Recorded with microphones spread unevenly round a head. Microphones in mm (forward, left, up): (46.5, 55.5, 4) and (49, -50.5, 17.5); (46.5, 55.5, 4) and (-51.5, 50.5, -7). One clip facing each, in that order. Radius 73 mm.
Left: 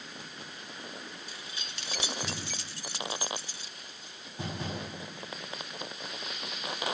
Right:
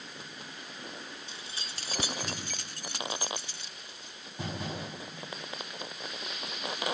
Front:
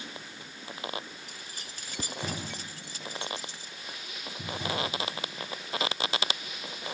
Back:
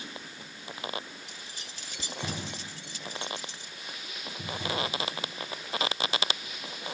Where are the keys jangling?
35° right; by 4.2 s 65° right.